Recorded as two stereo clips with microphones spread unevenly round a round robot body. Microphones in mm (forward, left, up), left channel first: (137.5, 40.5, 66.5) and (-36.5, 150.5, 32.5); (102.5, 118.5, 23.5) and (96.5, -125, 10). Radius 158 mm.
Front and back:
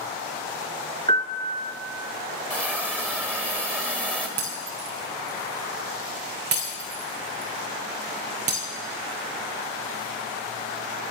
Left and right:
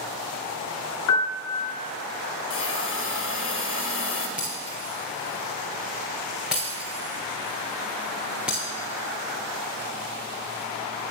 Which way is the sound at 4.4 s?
Straight behind.